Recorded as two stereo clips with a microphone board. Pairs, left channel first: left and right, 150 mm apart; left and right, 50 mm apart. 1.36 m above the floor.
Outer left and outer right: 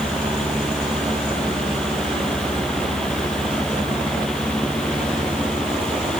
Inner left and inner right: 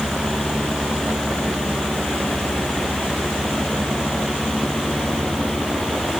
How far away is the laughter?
I don't hear laughter.